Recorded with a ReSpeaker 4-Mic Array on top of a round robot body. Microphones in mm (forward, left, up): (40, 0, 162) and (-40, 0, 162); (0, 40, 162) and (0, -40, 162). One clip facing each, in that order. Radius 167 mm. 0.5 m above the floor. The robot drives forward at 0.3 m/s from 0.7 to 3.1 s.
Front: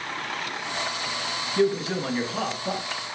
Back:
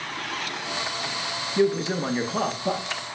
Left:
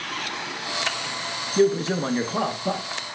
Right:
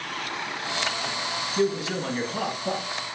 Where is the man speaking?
110° left, 0.8 m; by 2.8 s 145° left, 0.9 m.